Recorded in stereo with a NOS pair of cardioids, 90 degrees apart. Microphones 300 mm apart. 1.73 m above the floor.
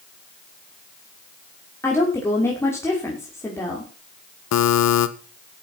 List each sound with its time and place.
1.8 s a woman speaking: 10° left, 5.5 m
4.5 s a buzzer: 65° left, 1.6 m